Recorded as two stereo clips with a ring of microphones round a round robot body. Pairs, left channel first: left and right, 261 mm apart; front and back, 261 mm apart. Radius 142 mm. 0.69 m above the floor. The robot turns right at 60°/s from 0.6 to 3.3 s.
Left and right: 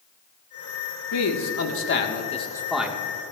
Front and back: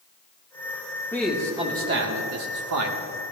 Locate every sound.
1.1 s a man speaking: 80° left, 1.5 m; by 3.0 s 165° right, 1.5 m